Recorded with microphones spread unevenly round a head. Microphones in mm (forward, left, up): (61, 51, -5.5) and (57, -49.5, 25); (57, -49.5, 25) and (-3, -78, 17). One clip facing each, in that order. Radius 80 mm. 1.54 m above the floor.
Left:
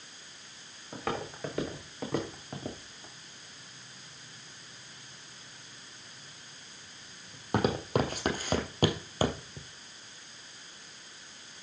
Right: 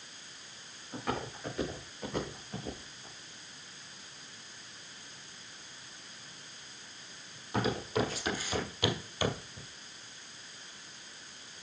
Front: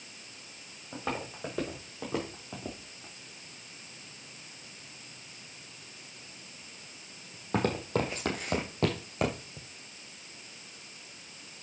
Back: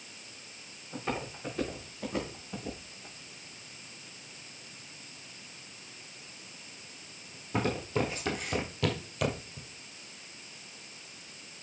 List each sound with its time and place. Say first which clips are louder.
0.9 s footsteps: left 1 dB, even; 70° left, 6 m; by 9.7 s 25° left, 1.7 m